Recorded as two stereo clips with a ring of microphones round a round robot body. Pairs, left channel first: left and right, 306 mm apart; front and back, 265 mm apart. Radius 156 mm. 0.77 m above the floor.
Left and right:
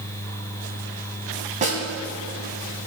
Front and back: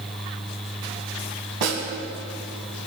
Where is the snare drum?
160° right, 2 m.